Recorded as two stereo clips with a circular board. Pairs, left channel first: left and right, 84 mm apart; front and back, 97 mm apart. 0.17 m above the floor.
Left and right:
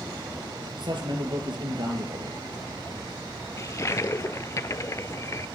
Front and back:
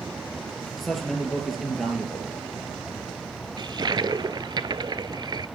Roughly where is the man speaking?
Right.